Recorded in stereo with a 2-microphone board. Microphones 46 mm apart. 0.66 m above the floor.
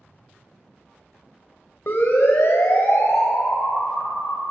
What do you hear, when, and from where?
1.9 s a siren: 55° left (ahead or behind), 2.5 m; by 4.4 s 80° left, 4 m